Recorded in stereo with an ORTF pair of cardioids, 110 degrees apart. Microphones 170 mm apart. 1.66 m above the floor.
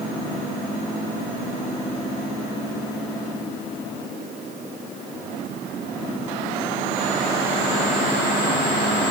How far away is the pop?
No pop in this recording.